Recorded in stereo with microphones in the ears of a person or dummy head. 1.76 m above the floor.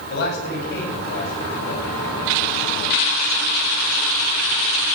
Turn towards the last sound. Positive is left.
turn(degrees=55)  # may be behind; listen again after turning